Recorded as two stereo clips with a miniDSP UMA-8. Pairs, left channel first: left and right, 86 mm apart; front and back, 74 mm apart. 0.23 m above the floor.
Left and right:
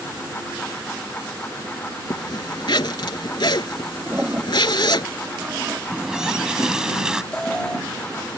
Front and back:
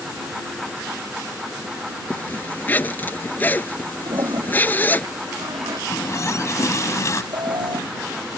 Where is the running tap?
10° right.